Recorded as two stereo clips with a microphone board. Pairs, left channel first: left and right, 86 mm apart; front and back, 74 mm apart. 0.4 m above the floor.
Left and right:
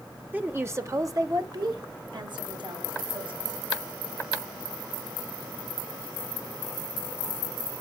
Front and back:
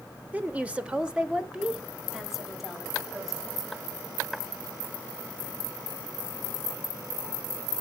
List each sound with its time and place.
0.3 s a woman speaking: 135° right, 1.0 m; by 3.5 s 90° right, 2.5 m